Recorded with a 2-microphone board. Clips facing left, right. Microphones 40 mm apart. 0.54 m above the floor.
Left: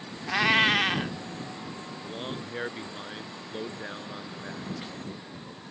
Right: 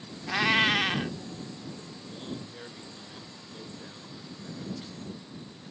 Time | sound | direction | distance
0.3 | a cat meowing | 10° left (ahead or behind) | ?
2.0 | a man speaking | 50° left (ahead or behind) | ?